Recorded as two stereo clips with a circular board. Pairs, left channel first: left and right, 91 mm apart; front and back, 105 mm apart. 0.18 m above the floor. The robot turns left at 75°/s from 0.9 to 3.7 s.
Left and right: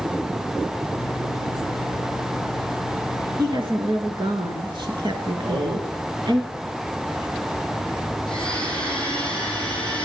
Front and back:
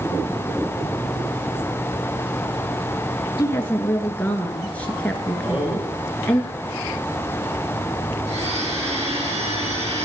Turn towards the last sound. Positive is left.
turn(degrees=170)